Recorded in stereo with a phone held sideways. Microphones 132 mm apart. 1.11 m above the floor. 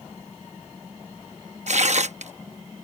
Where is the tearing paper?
65° right (ahead or behind).